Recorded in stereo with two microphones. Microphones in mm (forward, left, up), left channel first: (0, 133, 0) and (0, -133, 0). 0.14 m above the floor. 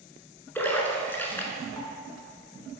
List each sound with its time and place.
0.6 s a splash: 10° left (ahead or behind), 1.4 m